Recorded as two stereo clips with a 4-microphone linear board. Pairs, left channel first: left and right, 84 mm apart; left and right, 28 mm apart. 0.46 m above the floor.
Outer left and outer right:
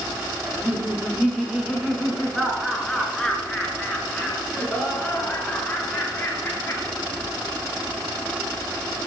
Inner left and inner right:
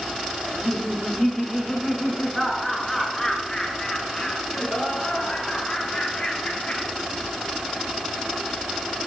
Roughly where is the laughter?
Centre.